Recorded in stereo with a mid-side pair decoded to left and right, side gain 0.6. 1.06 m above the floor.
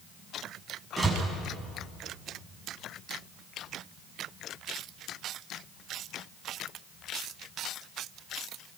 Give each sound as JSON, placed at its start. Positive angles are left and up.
{"t": 1.0, "sound": "a door slam", "azimuth_deg": -10, "distance_m": 7.5}